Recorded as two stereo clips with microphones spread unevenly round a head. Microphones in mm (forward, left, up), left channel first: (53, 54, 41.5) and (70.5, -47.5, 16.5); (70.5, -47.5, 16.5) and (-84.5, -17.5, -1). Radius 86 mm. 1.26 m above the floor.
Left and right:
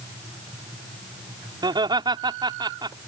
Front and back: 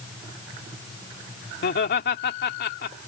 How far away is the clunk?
I don't hear a clunk.